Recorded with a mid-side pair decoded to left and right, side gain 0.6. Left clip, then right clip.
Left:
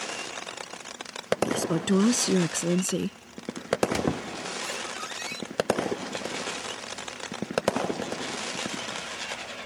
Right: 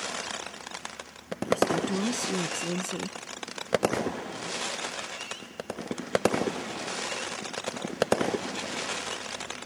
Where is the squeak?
60° left.